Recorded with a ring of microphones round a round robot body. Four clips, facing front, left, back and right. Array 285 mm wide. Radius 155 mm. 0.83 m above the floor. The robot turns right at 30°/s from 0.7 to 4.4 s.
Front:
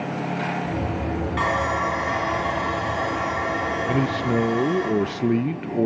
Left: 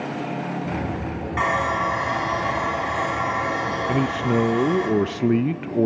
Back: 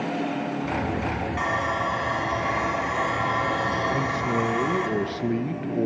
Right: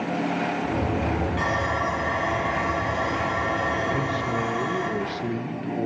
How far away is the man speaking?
About 0.6 m.